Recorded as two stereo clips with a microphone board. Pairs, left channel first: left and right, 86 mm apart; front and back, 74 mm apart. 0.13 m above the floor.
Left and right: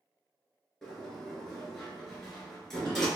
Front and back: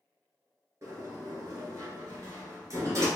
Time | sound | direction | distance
0.8 | a sliding door | 175° left | 1.2 m